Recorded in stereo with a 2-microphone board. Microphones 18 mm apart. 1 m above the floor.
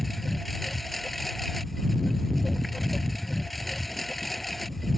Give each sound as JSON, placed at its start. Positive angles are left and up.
{"t": 0.0, "sound": "a lawn mower", "side_deg": 10}